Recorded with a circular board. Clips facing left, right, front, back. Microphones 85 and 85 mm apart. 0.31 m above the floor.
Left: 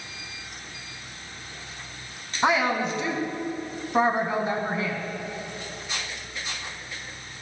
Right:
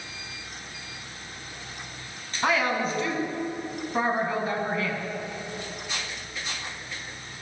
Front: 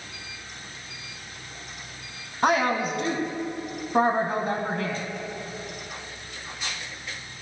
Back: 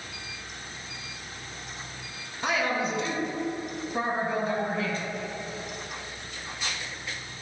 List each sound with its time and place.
2.4 s a woman speaking: 25° left, 2 m